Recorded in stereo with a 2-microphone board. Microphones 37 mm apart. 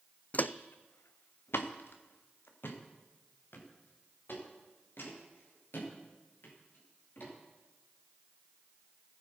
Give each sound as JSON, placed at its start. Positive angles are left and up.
{"t": 0.3, "sound": "footsteps", "side_deg": 40, "distance_m": 0.5}